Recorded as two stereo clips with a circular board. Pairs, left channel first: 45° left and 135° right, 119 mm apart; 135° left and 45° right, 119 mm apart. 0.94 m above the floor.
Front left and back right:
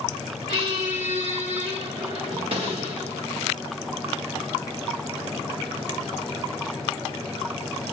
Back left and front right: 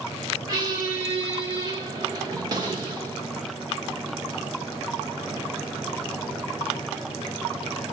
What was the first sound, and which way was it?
A squeak, 100° right.